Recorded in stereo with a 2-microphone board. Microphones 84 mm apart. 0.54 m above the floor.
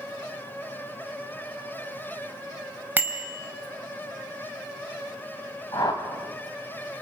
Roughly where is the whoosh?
Left.